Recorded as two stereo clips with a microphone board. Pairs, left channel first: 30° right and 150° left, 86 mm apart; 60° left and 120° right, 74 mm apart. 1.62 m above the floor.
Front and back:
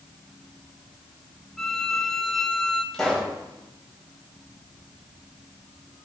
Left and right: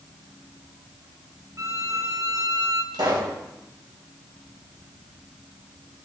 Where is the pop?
115° right, 3.5 m.